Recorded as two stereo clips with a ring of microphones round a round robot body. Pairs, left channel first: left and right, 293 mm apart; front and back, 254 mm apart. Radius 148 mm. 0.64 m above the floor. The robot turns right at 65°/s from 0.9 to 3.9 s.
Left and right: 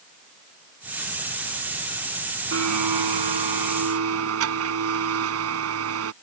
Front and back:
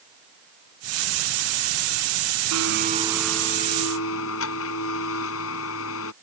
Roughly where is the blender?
Behind right.